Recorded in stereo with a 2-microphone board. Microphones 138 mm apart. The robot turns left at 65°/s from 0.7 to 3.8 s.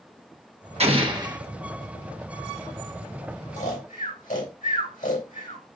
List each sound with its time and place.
0.8 s an explosion: 115° right, 1.2 m; by 1.4 s 155° right, 1.2 m
3.6 s snoring: 70° left (ahead or behind), 3 m; by 5.6 s 85° left, 3 m